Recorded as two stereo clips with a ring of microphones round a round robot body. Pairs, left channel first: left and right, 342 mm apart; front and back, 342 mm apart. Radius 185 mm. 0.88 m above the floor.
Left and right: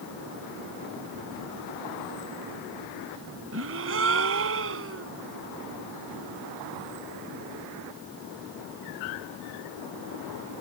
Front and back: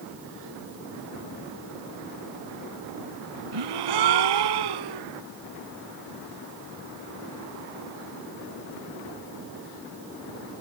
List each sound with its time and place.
3.5 s a gasp: 150° right